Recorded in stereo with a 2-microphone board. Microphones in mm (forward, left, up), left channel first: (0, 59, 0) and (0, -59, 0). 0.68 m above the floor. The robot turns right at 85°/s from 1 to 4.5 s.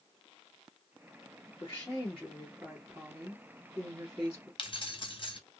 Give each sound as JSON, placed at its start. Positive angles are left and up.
{"t": 1.6, "sound": "a woman speaking", "azimuth_deg": 120, "distance_m": 1.5}
{"t": 4.6, "sound": "keys jangling", "side_deg": 45, "distance_m": 0.7}